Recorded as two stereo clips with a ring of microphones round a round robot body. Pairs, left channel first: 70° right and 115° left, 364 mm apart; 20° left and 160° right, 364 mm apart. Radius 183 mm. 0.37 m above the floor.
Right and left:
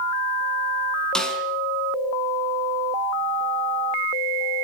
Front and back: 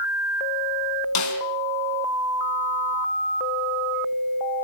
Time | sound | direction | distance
1.1 | a snare drum | 20° left | 3.5 m